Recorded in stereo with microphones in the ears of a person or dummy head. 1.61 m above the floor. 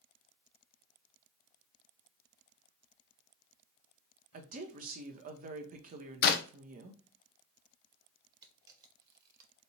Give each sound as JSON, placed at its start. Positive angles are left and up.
{"t": 4.3, "sound": "a woman speaking", "side_deg": -45, "distance_m": 0.7}
{"t": 6.2, "sound": "a clap", "side_deg": 50, "distance_m": 0.5}
{"t": 8.4, "sound": "a camera shutter", "side_deg": -20, "distance_m": 0.7}